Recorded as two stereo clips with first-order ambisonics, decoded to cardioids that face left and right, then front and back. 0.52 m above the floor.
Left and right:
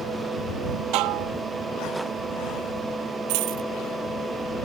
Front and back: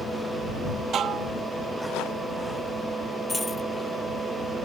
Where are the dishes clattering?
125° right.